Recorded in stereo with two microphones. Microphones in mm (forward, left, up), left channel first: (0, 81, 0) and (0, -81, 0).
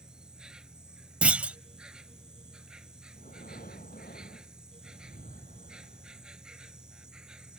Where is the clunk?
10° right (ahead or behind).